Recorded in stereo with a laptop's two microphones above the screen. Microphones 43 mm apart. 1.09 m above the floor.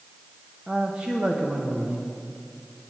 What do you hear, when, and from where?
0.7 s a man speaking: 25° right (ahead or behind), 0.9 m